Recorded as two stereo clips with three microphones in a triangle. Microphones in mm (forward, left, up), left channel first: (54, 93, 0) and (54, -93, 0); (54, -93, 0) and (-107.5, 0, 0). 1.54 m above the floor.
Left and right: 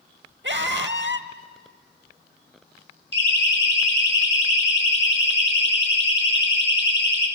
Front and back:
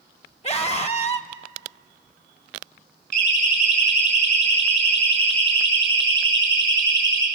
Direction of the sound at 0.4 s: 85° right.